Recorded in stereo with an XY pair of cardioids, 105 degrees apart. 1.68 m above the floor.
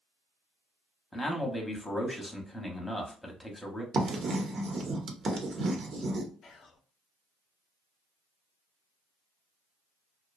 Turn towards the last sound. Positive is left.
turn(degrees=50)